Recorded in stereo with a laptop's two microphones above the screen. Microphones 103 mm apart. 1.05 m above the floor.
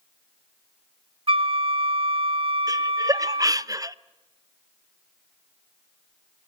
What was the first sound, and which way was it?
A flute, 55° right (ahead or behind).